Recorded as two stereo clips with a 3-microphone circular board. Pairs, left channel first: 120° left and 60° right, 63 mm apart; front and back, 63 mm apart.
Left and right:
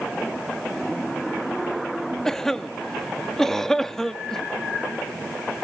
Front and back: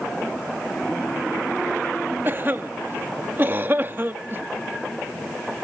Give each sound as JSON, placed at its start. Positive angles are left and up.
{"t": 2.2, "sound": "a cough", "azimuth_deg": -160, "distance_m": 0.6}